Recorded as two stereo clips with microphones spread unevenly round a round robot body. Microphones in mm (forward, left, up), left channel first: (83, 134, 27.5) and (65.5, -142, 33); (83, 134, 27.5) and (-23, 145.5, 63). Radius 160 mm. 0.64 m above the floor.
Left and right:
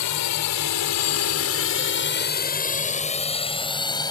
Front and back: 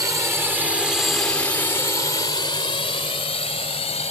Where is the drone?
105° left; by 4.1 s 10° left.